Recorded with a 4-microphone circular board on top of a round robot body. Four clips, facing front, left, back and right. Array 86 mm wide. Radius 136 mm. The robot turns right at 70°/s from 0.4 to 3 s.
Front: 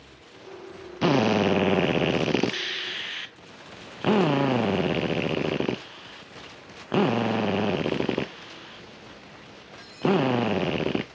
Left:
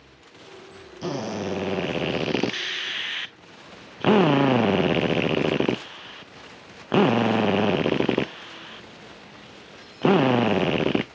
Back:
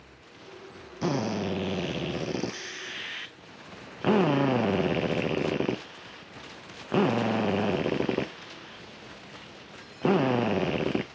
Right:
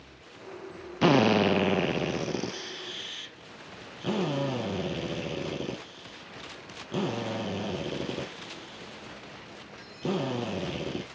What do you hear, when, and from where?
1.0 s a drill: 55° right, 0.7 m; by 11.1 s 85° left, 0.7 m